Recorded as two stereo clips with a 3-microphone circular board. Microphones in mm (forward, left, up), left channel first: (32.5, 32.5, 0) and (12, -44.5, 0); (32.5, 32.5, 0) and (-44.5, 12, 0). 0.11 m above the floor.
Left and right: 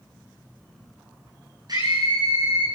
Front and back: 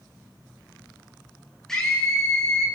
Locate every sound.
1.7 s a scream: 70° right, 8 m